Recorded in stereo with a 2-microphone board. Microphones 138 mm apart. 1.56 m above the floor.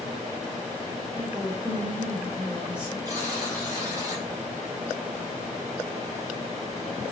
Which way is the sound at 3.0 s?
30° right (ahead or behind).